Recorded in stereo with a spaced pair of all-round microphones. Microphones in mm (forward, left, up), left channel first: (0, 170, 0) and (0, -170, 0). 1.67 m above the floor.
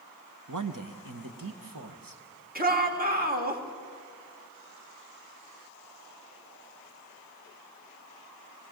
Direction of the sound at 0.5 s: 60° right (ahead or behind).